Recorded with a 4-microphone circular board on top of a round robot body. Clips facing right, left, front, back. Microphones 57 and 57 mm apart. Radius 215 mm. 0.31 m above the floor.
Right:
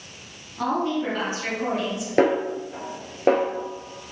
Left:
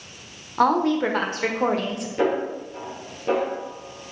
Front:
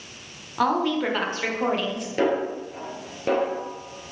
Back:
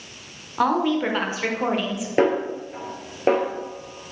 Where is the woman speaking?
95° left, 1.6 m.